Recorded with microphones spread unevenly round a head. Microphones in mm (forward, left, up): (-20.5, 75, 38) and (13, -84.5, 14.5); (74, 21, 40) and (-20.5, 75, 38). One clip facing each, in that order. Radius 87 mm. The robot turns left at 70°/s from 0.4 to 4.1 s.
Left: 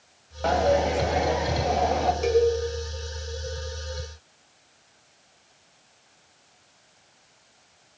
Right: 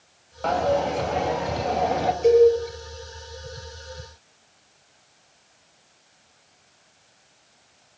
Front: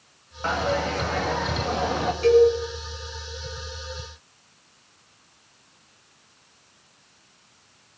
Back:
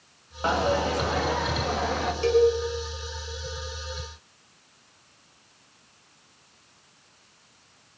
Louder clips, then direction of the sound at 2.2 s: Right 7 dB, front 4 dB; 90° left.